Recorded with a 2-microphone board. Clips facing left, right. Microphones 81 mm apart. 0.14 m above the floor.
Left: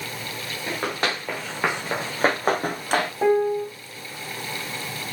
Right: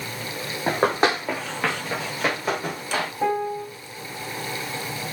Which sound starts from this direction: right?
Running footsteps, at 0.7 s.